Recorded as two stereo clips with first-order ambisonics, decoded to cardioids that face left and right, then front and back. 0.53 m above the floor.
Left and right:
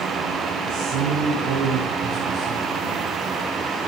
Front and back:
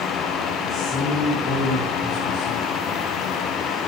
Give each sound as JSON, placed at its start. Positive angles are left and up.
{"t": 0.7, "sound": "a man speaking", "azimuth_deg": -70, "distance_m": 6.5}